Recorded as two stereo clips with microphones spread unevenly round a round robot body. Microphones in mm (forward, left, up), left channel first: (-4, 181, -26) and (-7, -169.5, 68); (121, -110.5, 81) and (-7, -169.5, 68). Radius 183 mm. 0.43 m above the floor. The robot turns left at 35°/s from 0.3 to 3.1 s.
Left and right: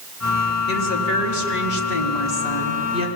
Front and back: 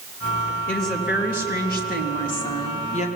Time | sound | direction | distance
0.7 | a woman speaking | 70° left | 4 m